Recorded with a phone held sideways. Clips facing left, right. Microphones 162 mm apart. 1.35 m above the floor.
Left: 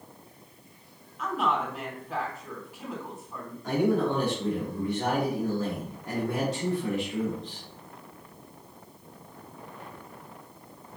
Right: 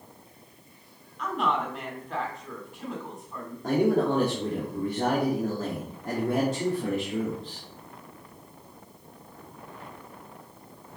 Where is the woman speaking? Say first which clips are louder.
Even; 5° left (ahead or behind), 3.5 m.